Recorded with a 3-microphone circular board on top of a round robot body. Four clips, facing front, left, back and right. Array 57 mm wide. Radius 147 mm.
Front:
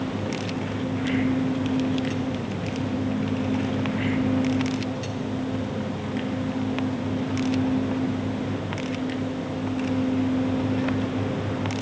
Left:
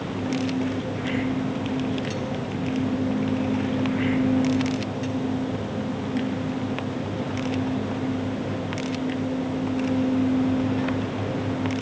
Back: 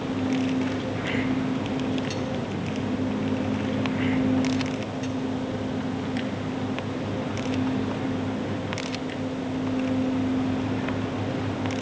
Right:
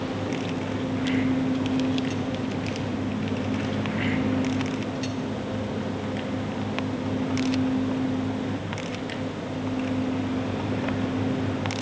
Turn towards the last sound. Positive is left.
No sound to turn to.